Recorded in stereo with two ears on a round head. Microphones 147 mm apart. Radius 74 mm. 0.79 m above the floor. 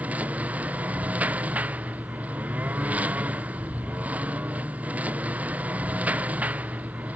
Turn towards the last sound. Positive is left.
turn(degrees=-10)  # may be behind; listen again after turning